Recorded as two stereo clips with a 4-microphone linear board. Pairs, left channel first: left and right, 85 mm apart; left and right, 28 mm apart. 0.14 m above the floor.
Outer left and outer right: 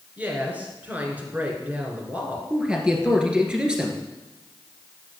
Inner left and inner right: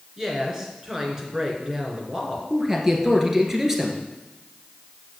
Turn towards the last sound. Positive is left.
turn(degrees=-10)  # may be behind; listen again after turning